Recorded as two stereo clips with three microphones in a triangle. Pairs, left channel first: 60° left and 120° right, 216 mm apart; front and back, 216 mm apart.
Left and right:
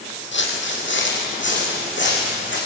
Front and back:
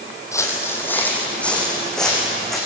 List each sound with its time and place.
0.3 s footsteps: 75° left, 3.5 m; by 2.6 s 90° left, 6.5 m